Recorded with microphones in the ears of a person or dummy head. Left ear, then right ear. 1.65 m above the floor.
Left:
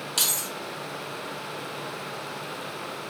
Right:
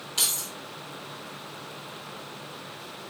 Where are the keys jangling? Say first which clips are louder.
Left 1 dB; 15° left (ahead or behind), 1.5 m.